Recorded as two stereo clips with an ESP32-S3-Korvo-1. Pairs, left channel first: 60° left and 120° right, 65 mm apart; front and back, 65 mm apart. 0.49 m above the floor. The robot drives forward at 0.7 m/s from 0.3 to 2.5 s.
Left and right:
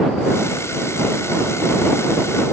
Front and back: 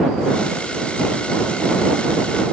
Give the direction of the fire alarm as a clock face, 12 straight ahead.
I don't hear a fire alarm.